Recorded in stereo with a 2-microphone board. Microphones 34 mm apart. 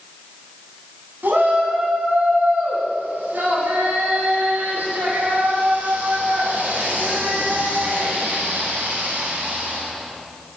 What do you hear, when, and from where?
1.2 s a shout: 80° right, 8.5 m